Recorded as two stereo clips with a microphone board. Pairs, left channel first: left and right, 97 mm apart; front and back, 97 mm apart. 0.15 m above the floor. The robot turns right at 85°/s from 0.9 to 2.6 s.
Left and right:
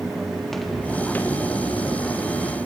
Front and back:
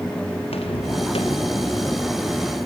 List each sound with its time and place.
0.4 s footsteps: 5° left, 4 m; by 2.6 s 125° left, 4.5 m